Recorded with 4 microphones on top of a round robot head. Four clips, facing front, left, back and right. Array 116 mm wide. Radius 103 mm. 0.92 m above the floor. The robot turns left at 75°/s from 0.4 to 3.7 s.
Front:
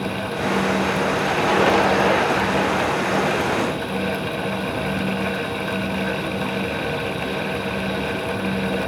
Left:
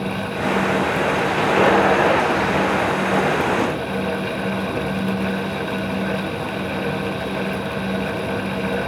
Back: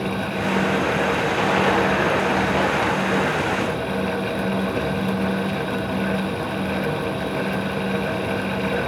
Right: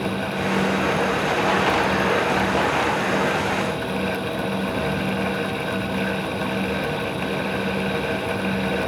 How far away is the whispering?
I don't hear whispering.